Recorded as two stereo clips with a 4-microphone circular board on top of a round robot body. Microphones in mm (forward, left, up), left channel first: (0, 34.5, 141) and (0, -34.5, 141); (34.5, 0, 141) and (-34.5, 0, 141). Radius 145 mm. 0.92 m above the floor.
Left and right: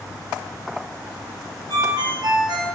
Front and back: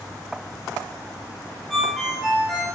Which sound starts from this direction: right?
A ringtone, at 1.7 s.